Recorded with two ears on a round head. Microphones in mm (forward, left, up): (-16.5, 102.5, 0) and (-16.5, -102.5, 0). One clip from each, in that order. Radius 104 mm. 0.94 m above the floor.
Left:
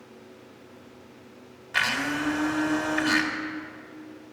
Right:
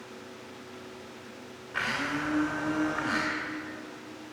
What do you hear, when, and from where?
1.7 s a blender: 80° left, 2 m